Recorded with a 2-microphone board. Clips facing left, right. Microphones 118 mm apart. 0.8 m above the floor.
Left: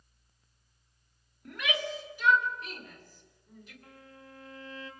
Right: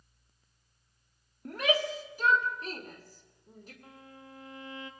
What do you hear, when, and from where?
1.4 s a shout: 40° right (ahead or behind), 2 m
3.8 s a violin: 20° right (ahead or behind), 2 m